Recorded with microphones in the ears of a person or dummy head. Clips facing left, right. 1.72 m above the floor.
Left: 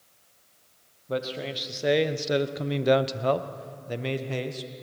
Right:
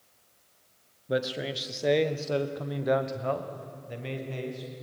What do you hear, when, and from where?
1.1 s a man speaking: 15° right (ahead or behind), 1.4 m; by 4.7 s 85° left, 1.9 m